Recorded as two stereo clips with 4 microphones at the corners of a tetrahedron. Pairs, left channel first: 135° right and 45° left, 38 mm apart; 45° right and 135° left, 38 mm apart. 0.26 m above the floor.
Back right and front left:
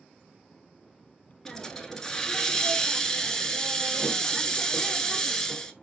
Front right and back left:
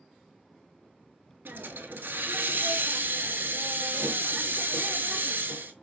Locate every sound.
1.4 s a hiss: 150° left, 0.7 m